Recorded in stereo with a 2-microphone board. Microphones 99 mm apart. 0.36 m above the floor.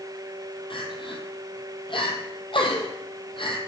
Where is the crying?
60° left (ahead or behind), 3 m.